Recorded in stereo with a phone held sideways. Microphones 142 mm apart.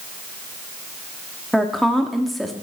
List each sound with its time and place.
1.5 s a woman speaking: centre (ahead or behind), 1.7 m